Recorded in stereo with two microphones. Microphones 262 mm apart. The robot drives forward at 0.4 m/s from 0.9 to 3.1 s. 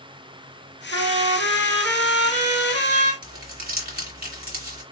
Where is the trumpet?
50° right (ahead or behind), 2.5 m.